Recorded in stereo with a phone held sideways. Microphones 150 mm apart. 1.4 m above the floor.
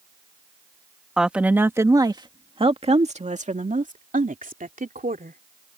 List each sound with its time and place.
1.2 s a woman speaking: 5° right (ahead or behind); by 5.4 s 75° right (ahead or behind)